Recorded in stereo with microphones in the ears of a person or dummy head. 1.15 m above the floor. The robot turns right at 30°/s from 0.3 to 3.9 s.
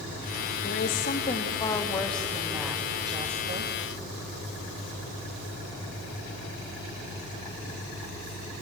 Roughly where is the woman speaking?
Behind left.